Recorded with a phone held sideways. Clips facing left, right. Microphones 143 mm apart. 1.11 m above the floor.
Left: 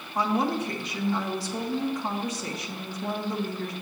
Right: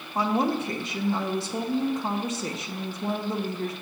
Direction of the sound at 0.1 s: 25° right (ahead or behind).